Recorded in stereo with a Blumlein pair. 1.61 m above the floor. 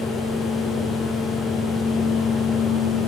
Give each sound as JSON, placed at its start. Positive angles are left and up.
{"t": 0.0, "sound": "a fan", "azimuth_deg": 15, "distance_m": 1.0}